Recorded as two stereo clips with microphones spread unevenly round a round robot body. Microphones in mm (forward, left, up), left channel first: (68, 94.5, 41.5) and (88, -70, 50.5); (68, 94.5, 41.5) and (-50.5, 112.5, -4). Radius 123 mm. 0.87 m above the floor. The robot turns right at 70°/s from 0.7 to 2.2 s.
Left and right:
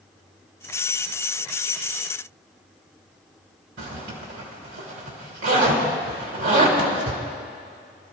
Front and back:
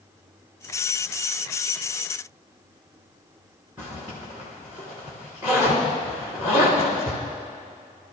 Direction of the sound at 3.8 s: 100° right.